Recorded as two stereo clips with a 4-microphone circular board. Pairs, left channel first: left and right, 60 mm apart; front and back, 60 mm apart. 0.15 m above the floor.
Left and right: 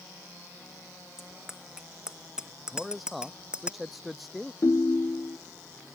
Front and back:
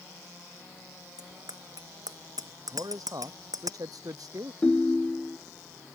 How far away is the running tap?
No running tap in this recording.